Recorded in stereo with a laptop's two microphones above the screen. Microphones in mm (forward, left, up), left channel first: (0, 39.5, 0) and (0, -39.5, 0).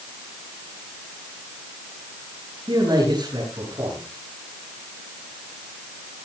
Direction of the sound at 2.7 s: 70° right (ahead or behind).